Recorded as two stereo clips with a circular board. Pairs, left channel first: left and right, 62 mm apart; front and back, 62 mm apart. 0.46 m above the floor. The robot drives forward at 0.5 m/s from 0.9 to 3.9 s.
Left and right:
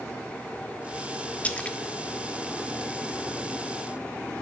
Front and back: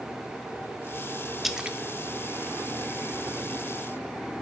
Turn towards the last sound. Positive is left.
turn(degrees=170)